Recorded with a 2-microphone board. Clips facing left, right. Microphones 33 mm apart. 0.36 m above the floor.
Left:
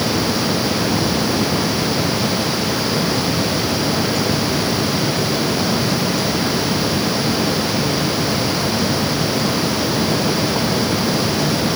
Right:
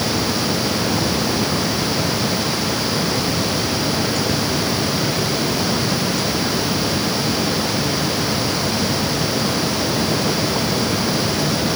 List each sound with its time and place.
Only background noise.